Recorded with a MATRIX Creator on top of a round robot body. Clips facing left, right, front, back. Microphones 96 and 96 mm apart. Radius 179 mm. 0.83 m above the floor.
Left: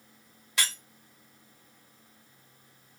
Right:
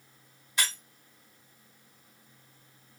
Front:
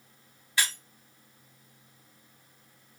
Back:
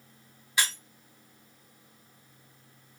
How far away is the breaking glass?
About 1.3 m.